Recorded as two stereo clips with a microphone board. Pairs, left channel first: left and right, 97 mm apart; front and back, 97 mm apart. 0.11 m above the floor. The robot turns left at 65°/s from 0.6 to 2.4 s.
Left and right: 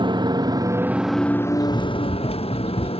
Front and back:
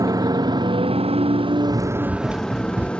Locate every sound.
0.0 s a motorcycle: 130° right; by 3.0 s 80° left
1.7 s running footsteps: 130° left; by 2.9 s 110° left